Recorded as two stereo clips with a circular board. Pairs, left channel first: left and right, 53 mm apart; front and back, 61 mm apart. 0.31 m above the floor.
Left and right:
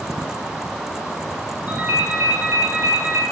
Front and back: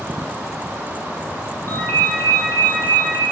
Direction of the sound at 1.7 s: 35° right.